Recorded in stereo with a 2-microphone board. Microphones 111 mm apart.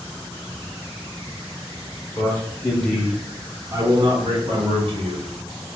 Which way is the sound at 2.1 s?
25° left (ahead or behind).